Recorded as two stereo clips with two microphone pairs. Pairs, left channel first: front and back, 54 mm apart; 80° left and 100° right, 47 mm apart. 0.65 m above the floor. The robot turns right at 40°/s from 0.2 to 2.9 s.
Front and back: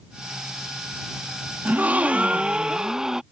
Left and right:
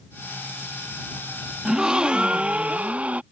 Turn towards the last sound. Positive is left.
turn(degrees=-110)